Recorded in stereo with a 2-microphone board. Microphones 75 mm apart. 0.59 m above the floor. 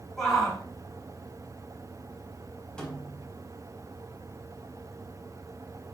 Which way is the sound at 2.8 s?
15° left (ahead or behind).